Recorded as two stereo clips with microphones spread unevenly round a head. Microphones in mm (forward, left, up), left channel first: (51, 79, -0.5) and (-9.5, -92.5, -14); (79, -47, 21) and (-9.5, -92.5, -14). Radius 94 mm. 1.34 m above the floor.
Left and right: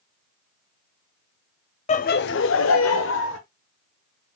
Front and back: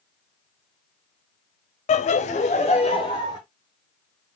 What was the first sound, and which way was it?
Laughter, 20° left.